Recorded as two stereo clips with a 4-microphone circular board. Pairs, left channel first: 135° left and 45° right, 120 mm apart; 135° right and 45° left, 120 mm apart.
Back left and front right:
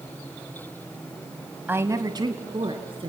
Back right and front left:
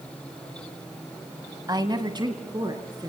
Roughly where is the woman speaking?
Ahead.